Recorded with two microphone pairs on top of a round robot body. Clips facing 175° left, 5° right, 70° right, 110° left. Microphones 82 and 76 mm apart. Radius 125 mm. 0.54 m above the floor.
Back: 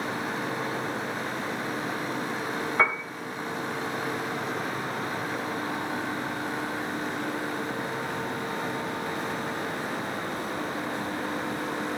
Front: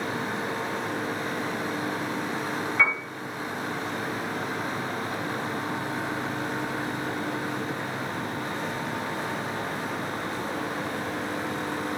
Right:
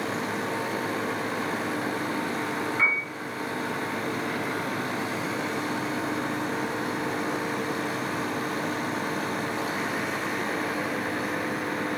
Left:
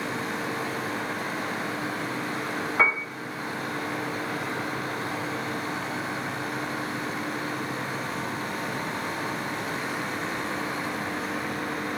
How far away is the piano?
About 1.4 m.